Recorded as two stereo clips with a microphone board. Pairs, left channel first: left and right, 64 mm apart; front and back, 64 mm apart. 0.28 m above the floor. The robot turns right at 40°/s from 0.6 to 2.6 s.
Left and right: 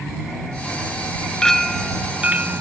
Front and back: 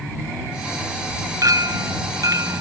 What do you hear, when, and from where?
1.4 s a clink: 170° left; by 2.6 s 145° right